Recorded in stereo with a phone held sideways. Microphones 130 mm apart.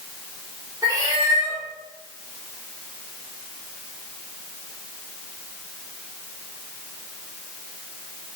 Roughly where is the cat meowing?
Right.